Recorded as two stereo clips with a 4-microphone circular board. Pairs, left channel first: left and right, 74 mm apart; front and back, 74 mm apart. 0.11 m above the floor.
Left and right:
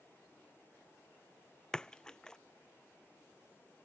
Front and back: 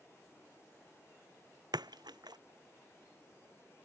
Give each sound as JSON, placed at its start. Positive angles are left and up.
{"t": 1.7, "sound": "a splash", "azimuth_deg": 170}